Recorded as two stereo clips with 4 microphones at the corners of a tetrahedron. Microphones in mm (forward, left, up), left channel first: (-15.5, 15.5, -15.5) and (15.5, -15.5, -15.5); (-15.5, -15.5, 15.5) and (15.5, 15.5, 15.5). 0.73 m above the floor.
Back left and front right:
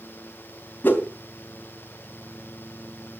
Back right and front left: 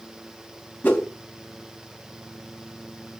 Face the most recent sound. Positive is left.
turn(degrees=180)